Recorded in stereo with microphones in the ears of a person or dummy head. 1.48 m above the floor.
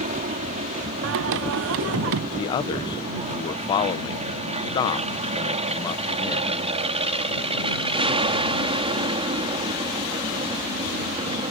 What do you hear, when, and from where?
0.0 s an aircraft: 35° right (ahead or behind); by 11.5 s 25° right (ahead or behind)
1.0 s singing: 65° right (ahead or behind)
2.4 s a man speaking: 25° left (ahead or behind)